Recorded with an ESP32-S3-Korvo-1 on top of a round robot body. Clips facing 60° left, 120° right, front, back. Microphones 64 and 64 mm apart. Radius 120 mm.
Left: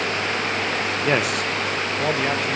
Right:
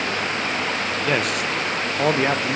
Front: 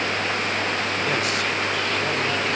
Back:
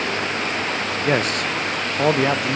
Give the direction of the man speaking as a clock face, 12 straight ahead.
8 o'clock.